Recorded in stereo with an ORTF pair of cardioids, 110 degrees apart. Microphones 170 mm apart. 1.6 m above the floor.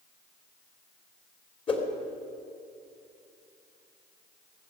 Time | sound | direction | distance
1.7 | a whoosh | 35° left | 3 m